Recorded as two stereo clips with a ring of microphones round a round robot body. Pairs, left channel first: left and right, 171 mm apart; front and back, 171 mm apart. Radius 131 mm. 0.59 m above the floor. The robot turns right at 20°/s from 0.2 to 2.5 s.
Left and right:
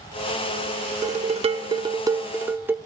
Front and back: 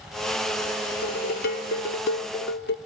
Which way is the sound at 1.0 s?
40° right.